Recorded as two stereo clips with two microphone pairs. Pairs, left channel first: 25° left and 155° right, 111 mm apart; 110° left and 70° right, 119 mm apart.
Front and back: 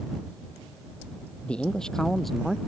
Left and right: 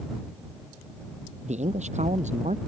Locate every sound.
1.4 s a man speaking: 55° right; by 2.6 s 70° right